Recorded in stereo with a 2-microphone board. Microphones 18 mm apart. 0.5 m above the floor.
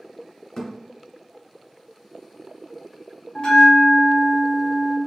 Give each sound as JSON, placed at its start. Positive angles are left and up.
{"t": 0.6, "sound": "a thud", "side_deg": 40, "distance_m": 1.4}
{"t": 3.4, "sound": "a bell", "side_deg": 45, "distance_m": 1.3}